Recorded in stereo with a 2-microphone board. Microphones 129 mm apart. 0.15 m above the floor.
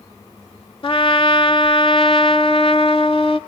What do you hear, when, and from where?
0.8 s a trumpet: 45° left (ahead or behind), 0.5 m